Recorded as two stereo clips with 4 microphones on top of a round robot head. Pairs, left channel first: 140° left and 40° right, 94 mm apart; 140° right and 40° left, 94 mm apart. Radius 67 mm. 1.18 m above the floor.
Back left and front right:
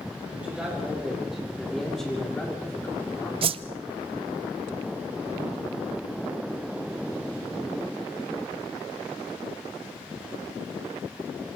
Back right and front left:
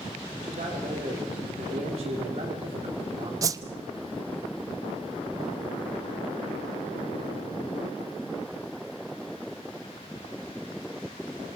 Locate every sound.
0.4 s a man speaking: 40° left, 4 m; by 3.3 s 75° left, 3 m
3.4 s a whoosh: 15° right, 0.6 m